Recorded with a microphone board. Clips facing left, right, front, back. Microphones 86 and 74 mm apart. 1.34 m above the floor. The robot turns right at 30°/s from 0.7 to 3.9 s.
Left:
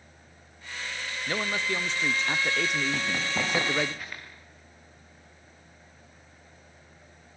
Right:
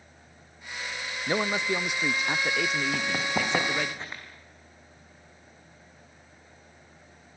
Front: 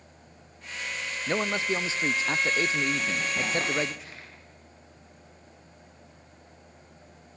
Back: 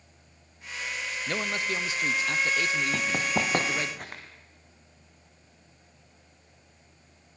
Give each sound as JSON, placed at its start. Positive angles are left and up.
{"t": 1.3, "sound": "a man speaking", "azimuth_deg": -45, "distance_m": 0.5}
{"t": 2.9, "sound": "running footsteps", "azimuth_deg": -160, "distance_m": 4.5}